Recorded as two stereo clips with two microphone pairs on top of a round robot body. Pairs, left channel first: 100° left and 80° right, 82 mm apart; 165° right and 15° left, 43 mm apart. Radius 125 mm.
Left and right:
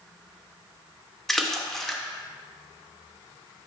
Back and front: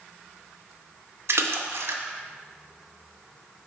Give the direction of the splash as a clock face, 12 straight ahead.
12 o'clock.